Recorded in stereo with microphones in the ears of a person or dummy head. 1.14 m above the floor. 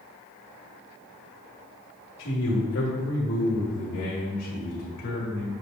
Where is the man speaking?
65° left (ahead or behind), 1.5 m; by 5.5 s 70° left (ahead or behind), 3 m.